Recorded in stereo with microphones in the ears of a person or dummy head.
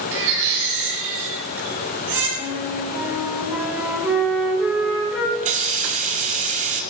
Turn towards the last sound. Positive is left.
turn(degrees=-40)  # may be behind; listen again after turning